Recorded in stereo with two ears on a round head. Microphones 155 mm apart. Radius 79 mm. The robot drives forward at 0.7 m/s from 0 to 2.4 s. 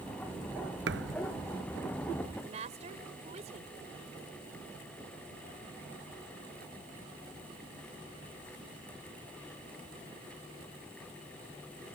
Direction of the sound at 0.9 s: 70° right (ahead or behind).